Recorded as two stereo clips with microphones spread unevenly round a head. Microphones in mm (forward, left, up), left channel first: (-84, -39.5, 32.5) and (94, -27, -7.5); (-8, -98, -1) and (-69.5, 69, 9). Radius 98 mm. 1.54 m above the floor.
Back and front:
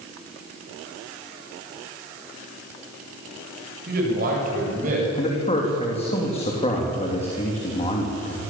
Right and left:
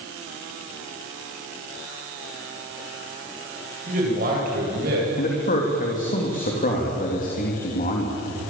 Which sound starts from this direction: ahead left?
A man speaking, at 3.9 s.